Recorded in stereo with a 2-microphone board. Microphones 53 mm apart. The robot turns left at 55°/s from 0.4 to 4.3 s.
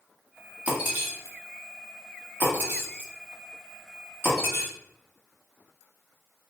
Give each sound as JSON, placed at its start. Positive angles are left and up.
{"t": 0.7, "sound": "breaking glass", "side_deg": -25, "distance_m": 1.2}